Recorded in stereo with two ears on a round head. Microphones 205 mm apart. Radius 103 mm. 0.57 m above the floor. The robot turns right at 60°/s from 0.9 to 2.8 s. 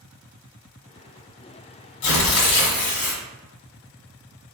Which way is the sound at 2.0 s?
80° left.